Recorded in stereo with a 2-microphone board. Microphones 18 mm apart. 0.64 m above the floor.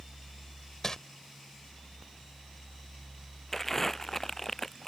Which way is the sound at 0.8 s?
35° left (ahead or behind).